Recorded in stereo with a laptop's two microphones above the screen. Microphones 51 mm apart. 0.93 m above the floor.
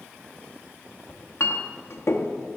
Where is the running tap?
No running tap in this recording.